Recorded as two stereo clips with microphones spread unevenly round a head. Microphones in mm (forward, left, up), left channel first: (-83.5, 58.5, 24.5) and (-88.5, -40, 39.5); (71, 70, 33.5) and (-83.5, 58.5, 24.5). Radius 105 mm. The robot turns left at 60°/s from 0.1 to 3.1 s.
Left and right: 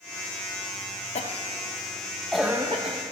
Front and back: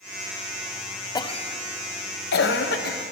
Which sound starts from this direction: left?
A cough, at 1.1 s.